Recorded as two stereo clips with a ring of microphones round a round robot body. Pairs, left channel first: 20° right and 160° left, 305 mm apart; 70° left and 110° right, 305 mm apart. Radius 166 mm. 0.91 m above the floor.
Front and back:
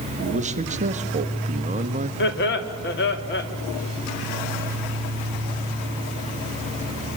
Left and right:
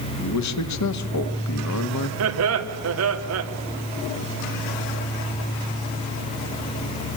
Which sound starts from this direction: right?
Laughter, at 2.2 s.